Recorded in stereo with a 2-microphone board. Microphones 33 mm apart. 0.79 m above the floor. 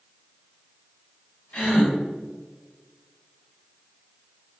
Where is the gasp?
65° left (ahead or behind), 1.4 m.